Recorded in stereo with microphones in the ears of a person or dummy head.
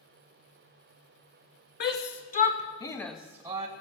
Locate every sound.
1.8 s a shout: 60° left (ahead or behind), 1.5 m; by 3.7 s 30° right (ahead or behind), 0.9 m